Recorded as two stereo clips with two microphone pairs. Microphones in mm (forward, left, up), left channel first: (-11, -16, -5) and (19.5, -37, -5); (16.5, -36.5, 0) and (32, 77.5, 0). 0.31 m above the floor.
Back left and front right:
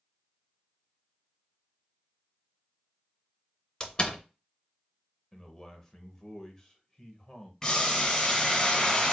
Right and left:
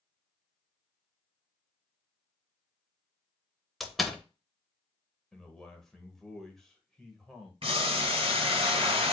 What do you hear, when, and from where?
3.8 s a door slam: 170° left, 0.6 m
5.3 s a man speaking: straight behind, 0.9 m
7.6 s boiling: 70° left, 1.9 m